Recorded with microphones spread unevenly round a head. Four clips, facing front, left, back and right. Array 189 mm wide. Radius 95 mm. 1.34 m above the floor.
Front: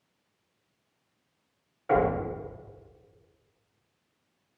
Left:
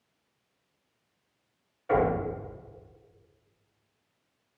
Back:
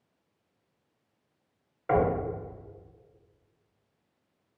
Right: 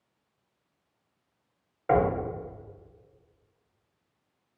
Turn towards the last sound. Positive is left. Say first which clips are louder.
# right 1 dB, front 1 dB
turn(degrees=-80)